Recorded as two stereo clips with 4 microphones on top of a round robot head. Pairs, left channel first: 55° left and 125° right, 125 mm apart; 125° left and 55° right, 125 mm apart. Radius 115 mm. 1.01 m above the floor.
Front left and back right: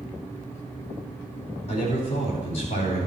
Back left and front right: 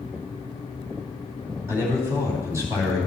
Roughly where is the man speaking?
Ahead.